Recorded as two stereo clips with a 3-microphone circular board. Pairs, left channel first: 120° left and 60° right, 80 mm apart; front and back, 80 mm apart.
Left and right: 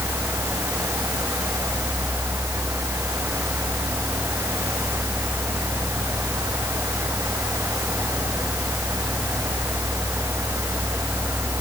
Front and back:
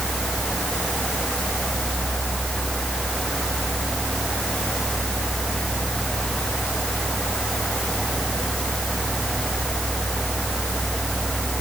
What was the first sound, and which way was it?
Only background noise.